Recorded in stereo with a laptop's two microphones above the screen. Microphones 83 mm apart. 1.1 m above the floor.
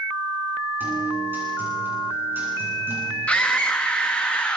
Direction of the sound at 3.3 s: 15° left (ahead or behind).